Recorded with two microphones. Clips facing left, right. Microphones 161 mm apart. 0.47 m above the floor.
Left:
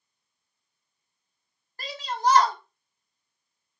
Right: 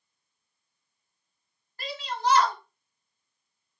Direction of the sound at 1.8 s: 40° left (ahead or behind).